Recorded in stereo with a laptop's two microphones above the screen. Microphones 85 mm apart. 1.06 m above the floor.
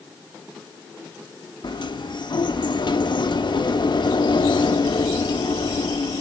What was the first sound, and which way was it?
A sliding door, 65° left (ahead or behind).